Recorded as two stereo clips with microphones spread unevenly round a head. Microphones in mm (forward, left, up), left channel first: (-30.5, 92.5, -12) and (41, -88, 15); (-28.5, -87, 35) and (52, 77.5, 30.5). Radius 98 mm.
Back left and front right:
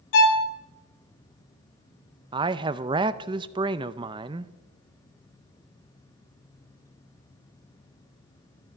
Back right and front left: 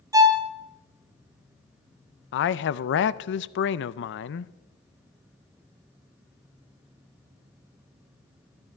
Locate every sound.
0.1 s a violin: 140° left, 1.4 m
2.3 s a man speaking: 140° right, 0.5 m